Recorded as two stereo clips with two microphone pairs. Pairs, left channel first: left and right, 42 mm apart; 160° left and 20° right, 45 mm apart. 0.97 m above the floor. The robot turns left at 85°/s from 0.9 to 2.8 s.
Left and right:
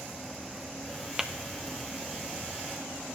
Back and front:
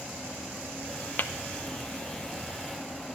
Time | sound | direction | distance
1.2 | tapping | 170° right | 0.7 m